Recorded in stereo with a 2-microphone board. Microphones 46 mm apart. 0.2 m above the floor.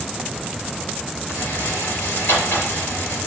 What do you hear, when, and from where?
1.3 s a rattle: 50° left (ahead or behind), 4.5 m